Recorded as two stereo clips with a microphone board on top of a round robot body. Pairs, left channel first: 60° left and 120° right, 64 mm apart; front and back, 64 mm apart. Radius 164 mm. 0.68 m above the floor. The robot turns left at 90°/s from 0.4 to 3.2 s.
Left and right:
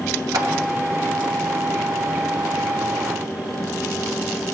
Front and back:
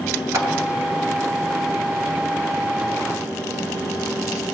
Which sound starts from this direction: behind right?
A clap, at 0.3 s.